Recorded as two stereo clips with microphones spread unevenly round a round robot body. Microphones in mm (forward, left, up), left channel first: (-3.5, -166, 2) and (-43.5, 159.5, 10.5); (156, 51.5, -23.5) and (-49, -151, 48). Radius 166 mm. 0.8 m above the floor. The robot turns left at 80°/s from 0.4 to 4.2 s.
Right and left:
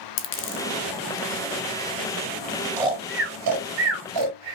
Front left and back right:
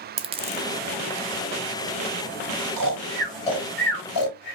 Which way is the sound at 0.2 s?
105° right.